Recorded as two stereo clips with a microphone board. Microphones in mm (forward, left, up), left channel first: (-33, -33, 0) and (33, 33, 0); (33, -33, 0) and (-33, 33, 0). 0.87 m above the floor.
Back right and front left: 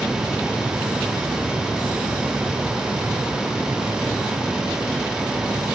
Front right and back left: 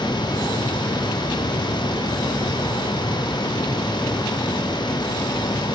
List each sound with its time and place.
Only background noise.